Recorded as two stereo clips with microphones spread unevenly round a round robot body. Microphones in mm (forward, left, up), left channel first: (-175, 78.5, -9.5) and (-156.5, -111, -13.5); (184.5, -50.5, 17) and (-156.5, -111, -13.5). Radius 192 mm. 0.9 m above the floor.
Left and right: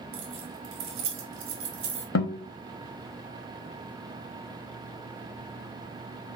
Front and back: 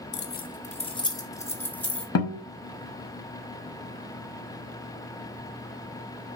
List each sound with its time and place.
0.1 s keys jangling: 50° right, 0.9 m; by 2.0 s 80° right, 2.0 m
2.1 s a guitar: 65° left, 0.8 m